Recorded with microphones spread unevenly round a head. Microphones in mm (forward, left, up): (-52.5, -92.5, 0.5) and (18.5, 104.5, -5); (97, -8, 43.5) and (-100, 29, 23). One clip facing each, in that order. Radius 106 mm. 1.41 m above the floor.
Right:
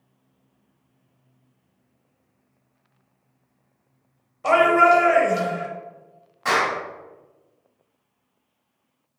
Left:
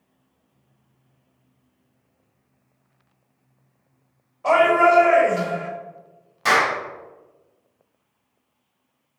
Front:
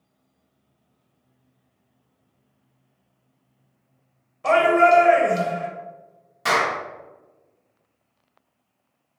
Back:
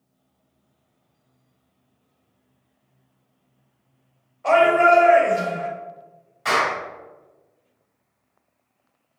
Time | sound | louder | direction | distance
4.4 | a shout | left 1 dB, back 1 dB | 50° right | 1.0 m
6.5 | a clap | left 2 dB, even | 25° left | 2 m